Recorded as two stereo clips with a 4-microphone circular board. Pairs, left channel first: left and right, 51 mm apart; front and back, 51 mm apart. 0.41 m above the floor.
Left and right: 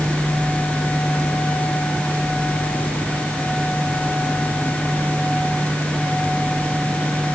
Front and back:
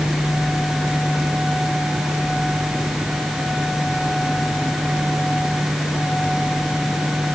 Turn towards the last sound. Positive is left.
No sound to turn to.